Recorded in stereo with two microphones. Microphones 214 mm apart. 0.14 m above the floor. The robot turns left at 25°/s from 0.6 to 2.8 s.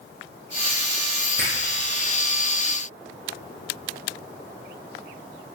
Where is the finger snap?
70° right (ahead or behind), 5.5 m; by 1.6 s 65° right (ahead or behind), 5.5 m.